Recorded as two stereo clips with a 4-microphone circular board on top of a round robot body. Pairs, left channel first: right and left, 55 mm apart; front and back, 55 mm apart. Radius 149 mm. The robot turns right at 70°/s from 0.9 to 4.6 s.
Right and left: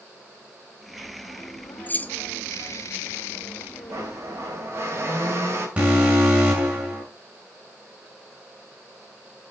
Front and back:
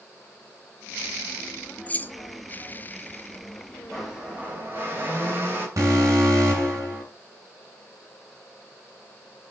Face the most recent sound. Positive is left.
turn(degrees=160)